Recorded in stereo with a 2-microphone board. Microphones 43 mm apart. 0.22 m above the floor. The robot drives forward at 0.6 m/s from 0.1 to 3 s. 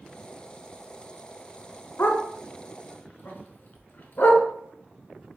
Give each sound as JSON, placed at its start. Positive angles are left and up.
{"t": 2.0, "sound": "a dog barking", "side_deg": 60, "distance_m": 0.9}